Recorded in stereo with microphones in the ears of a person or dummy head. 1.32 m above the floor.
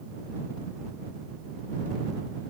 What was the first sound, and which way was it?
Only background noise.